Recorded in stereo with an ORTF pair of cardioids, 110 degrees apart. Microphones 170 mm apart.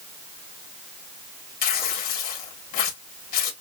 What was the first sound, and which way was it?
Tearing paper, 60° left.